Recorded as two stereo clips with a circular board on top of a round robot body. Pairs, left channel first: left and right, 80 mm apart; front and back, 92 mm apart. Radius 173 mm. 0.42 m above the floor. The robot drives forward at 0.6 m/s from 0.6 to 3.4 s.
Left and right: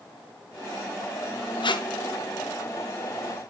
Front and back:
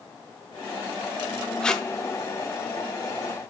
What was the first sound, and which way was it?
Tape being pulled, 80° left.